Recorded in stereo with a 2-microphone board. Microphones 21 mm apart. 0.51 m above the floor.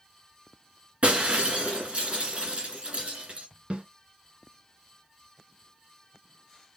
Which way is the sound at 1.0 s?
65° right (ahead or behind).